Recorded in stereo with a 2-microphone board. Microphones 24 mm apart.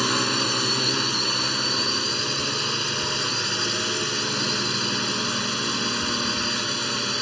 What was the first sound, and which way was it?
A drone, centre (ahead or behind).